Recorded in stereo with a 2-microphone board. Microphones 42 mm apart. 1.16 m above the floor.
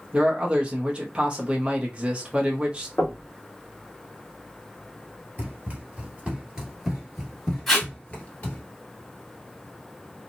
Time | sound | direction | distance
0.1 | a man speaking | 20° right (ahead or behind) | 0.7 m
3.0 | knocking | 55° left (ahead or behind) | 1.1 m
5.4 | running footsteps | 35° right (ahead or behind) | 1.6 m
7.7 | tape being pulled | 5° left (ahead or behind) | 1.7 m